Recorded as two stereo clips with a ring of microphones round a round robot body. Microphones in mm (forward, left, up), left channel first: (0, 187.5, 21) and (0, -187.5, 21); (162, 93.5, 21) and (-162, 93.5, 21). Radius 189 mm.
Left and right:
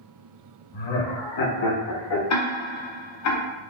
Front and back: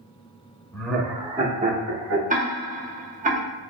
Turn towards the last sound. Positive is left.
turn(degrees=120)